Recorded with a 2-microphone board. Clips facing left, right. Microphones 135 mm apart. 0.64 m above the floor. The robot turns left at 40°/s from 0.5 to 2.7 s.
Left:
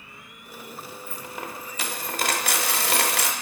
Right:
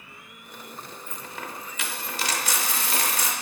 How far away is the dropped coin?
About 0.7 m.